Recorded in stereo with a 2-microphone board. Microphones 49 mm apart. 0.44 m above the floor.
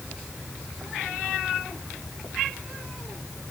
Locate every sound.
Only background noise.